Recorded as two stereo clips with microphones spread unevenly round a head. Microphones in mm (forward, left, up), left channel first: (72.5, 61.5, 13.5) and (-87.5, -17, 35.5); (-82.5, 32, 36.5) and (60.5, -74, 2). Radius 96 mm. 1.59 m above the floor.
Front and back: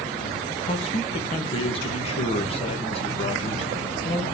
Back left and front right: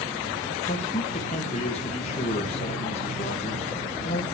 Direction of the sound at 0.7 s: 85° left.